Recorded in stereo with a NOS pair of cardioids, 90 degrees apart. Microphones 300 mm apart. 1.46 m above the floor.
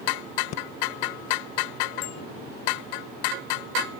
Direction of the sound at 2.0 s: 70° left.